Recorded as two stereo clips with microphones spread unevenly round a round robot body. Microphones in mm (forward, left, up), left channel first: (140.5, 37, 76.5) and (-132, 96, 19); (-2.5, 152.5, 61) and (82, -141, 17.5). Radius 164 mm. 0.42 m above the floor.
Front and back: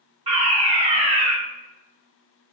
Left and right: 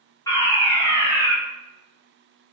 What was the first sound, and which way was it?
A fire alarm, 170° right.